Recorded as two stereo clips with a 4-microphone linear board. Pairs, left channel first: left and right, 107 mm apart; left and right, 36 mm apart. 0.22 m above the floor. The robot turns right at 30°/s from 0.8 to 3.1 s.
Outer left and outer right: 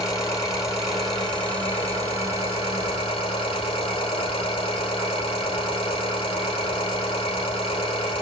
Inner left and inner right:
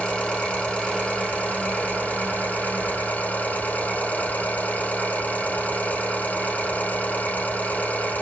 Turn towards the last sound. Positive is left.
turn(degrees=100)